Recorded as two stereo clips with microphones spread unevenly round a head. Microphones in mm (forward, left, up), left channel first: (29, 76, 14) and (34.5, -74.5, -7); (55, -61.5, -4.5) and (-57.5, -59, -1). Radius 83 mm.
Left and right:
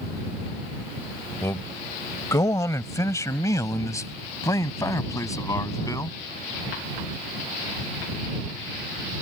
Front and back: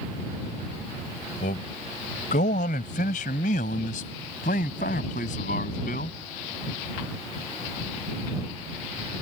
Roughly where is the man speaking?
Ahead.